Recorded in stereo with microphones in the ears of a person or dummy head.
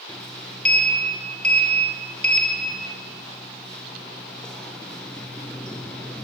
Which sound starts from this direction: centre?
A sliding door, at 0.1 s.